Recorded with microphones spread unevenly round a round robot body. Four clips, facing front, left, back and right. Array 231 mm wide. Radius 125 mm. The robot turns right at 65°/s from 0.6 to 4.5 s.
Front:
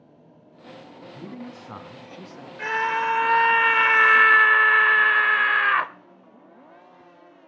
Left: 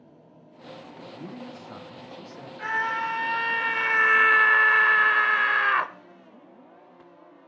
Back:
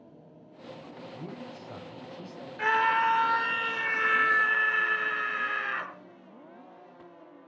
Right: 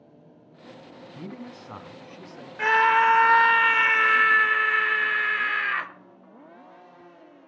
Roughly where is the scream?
Right.